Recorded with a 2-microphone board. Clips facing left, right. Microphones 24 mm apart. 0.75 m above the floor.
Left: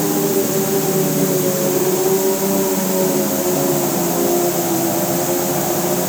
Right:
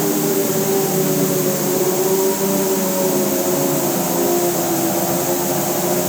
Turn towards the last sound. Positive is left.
No sound to turn to.